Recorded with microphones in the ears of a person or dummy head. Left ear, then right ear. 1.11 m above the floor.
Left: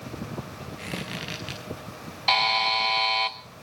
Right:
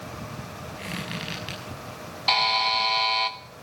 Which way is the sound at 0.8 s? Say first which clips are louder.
Right 1 dB; centre (ahead or behind).